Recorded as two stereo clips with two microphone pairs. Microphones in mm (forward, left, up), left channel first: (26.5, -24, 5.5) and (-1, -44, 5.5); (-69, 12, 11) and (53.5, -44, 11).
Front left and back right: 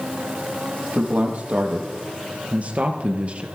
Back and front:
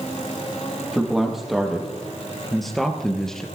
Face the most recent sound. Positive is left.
turn(degrees=-120)